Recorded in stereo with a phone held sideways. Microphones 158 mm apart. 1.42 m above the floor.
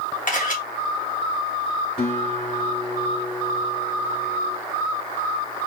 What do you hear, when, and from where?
0.3 s a camera shutter: 60° left (ahead or behind), 1.6 m
2.0 s a guitar: 80° left, 3 m